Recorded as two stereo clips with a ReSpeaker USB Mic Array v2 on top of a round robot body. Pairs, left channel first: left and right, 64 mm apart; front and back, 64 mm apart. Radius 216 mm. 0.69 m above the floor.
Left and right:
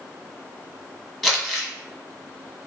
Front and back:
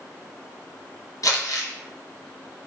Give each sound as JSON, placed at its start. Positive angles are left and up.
{"t": 1.2, "sound": "crumpling", "azimuth_deg": 0, "distance_m": 1.6}